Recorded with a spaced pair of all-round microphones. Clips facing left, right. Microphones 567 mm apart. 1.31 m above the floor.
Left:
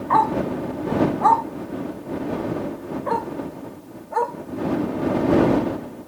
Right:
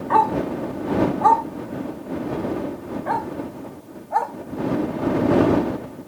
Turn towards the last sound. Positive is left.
turn(degrees=-15)  # may be behind; listen again after turning